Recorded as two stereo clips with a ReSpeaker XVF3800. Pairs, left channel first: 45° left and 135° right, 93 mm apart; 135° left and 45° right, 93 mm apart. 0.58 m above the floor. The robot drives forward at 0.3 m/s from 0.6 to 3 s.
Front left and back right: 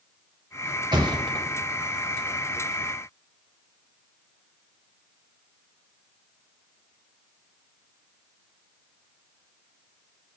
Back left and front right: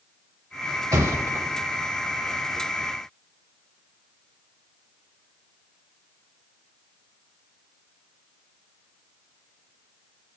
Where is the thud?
95° right, 1.2 m; by 1.5 s 105° right, 1.2 m.